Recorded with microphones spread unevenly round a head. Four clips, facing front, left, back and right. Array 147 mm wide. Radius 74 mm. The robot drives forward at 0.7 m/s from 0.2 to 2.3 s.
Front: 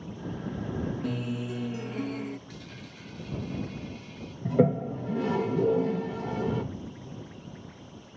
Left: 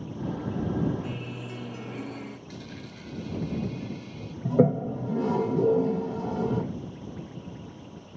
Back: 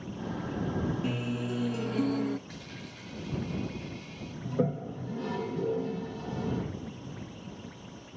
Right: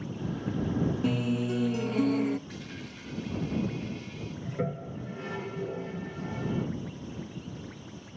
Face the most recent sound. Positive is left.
turn(degrees=60)